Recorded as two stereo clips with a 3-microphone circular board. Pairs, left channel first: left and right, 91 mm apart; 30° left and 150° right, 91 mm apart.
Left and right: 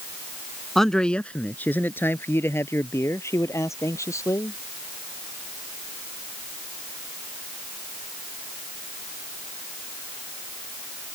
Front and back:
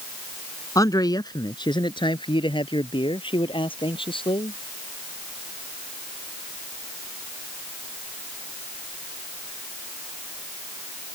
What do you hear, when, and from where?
0.8 s a man speaking: 5° left; by 4.6 s 35° left